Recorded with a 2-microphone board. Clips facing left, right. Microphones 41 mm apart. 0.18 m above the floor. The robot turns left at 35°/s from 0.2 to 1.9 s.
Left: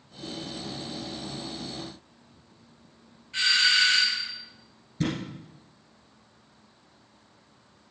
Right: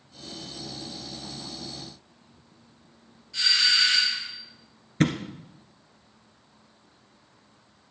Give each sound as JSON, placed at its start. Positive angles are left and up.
{"t": 3.3, "sound": "a doorbell", "side_deg": 35, "distance_m": 4.5}
{"t": 5.0, "sound": "a thud", "side_deg": -60, "distance_m": 1.5}